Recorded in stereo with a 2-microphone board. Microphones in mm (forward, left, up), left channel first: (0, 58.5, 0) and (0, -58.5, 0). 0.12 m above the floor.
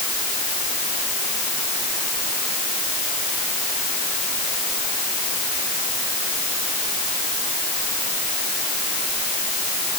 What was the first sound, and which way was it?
Only background noise.